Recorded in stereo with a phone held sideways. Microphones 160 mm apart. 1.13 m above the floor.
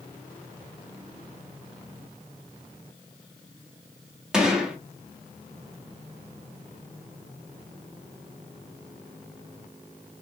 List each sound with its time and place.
4.3 s a gunshot: 5° right (ahead or behind), 0.8 m